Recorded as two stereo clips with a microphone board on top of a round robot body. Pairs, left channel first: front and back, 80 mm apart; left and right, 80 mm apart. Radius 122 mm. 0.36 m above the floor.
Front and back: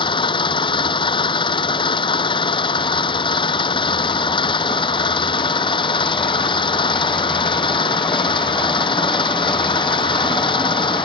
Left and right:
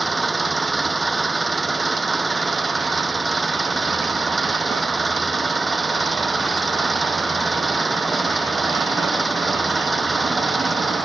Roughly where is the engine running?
Ahead.